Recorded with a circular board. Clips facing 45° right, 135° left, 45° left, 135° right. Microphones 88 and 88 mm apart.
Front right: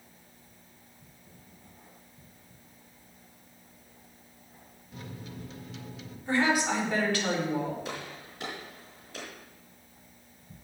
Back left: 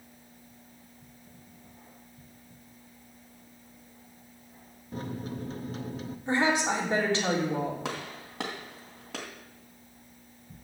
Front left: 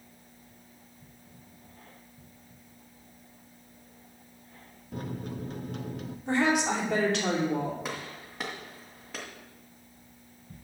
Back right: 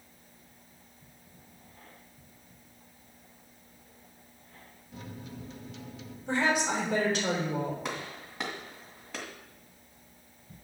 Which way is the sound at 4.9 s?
85° left.